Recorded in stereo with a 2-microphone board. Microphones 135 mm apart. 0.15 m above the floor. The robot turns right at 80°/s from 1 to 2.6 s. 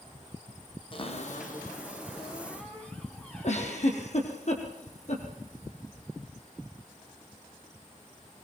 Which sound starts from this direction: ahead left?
A cupboard door, at 0.9 s.